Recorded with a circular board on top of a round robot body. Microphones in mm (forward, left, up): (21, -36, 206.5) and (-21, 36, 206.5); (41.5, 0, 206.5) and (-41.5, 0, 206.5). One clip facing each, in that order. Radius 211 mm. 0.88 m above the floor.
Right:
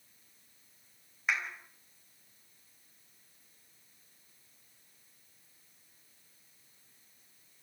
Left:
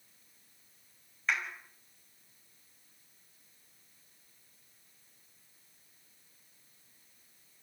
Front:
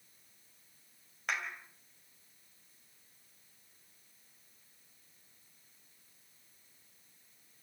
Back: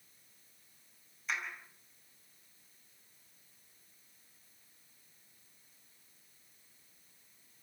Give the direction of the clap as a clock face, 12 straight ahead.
11 o'clock.